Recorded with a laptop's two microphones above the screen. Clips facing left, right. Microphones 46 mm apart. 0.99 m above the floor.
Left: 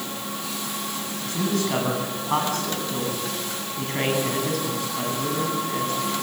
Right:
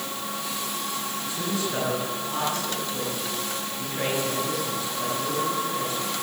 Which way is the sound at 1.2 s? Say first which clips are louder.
Left 6 dB; 70° left (ahead or behind).